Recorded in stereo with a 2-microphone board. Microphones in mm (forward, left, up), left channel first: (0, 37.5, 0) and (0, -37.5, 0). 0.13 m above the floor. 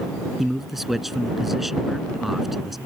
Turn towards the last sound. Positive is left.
turn(degrees=0)  # may be behind; listen again after turning